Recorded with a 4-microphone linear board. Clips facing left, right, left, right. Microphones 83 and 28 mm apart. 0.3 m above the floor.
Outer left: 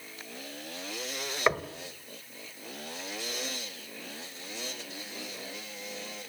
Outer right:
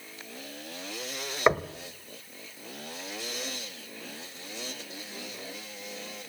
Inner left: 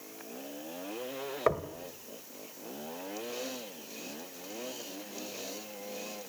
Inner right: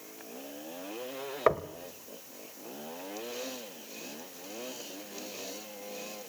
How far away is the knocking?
About 1.0 m.